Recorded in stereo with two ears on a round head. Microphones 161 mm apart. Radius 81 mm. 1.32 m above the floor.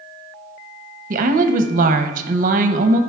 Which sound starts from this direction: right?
A woman speaking, at 1.1 s.